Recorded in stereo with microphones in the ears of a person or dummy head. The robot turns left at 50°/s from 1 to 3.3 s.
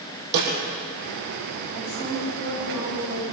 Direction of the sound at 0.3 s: 55° right (ahead or behind).